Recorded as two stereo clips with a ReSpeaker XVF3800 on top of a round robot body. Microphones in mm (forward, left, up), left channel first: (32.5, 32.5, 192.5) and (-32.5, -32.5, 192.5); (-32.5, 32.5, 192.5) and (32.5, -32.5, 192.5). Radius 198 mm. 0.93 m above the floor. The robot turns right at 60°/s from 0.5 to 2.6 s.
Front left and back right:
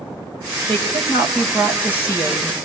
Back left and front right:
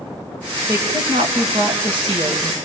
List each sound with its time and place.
0.7 s a woman speaking: 100° right, 6 m; by 2.5 s 10° left, 6 m